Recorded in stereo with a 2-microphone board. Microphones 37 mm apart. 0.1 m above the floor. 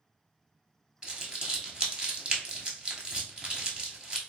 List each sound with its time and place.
1.0 s crumpling: 20° right (ahead or behind), 1.0 m